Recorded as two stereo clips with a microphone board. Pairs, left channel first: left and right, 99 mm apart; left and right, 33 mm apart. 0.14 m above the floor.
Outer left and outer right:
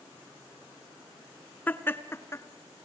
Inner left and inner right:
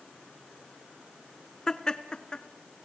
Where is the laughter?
20° left (ahead or behind), 1.4 m; by 2.9 s 35° left (ahead or behind), 1.9 m.